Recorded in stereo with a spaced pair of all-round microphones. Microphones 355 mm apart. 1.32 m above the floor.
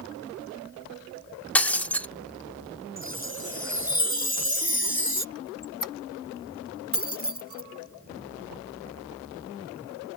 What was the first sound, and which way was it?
Breaking glass, 5° left (ahead or behind).